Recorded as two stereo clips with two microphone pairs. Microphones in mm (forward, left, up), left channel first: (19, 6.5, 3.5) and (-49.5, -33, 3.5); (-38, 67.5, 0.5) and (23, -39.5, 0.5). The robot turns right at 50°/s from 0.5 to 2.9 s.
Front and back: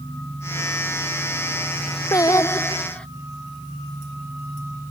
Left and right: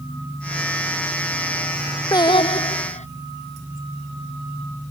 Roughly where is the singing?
Ahead left.